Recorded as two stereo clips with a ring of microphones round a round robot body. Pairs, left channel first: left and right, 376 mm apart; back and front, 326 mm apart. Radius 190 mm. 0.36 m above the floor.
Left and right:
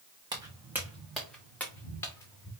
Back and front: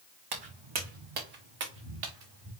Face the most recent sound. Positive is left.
turn(degrees=10)